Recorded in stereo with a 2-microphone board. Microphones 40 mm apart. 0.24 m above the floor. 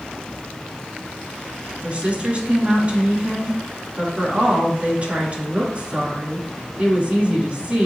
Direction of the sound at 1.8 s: 35° right (ahead or behind).